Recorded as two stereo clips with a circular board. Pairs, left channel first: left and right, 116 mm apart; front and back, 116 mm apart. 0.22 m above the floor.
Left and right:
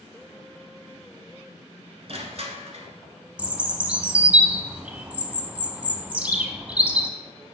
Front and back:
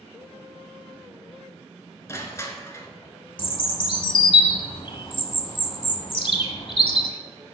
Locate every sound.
2.1 s crushing: 65° right, 0.9 m
3.4 s a bird: 15° right, 0.6 m